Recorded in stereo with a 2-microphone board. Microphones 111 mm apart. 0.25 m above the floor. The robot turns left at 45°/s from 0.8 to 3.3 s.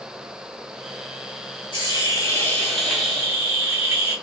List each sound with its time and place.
1.7 s a hiss: 50° left, 1.7 m; by 4.2 s 20° right, 1.7 m